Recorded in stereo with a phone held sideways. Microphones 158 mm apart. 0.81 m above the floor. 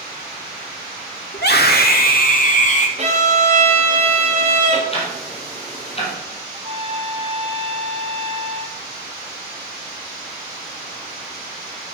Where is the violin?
40° right (ahead or behind), 1.7 m.